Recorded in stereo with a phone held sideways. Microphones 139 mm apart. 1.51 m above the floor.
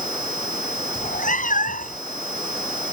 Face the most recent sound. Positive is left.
turn(degrees=75)  # may be behind; listen again after turning